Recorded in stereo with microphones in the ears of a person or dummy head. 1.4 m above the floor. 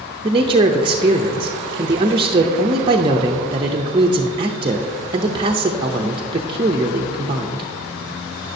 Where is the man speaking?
25° right (ahead or behind), 0.5 m.